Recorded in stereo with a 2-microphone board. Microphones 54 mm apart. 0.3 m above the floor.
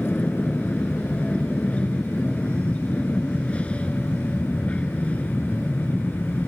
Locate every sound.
0.0 s an aircraft: 25° left (ahead or behind)